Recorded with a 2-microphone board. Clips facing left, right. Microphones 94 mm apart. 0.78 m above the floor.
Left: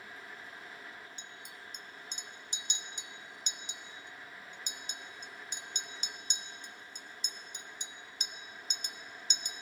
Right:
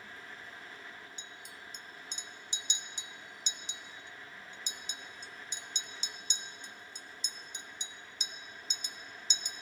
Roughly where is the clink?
Left.